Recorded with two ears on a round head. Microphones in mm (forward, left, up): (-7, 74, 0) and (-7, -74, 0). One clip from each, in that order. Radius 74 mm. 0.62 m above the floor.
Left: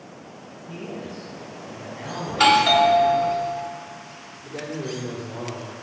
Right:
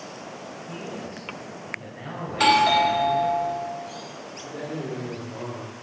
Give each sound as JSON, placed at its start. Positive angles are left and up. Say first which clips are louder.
{"t": 0.7, "sound": "a man speaking", "louder": "left 3 dB", "side_deg": -75, "distance_m": 3.0}
{"t": 2.3, "sound": "a doorbell", "louder": "left 2 dB", "side_deg": 10, "distance_m": 1.0}
{"t": 4.5, "sound": "a man speaking", "louder": "left 2 dB", "side_deg": 30, "distance_m": 2.0}